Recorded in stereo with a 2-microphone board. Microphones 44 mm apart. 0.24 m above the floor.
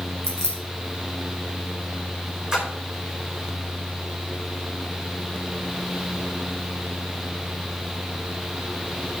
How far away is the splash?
About 4 m.